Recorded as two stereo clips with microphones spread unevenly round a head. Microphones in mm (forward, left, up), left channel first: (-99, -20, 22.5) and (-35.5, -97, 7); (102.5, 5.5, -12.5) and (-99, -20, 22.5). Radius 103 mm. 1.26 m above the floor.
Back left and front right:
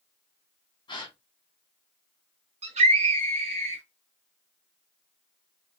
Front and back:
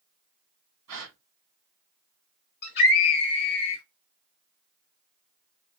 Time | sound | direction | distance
0.9 | a gasp | 175° left | 1.4 m
2.6 | a scream | 30° right | 0.9 m